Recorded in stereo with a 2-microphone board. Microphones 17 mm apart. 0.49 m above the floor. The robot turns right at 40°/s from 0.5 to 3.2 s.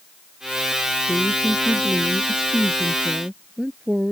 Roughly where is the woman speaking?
Behind left.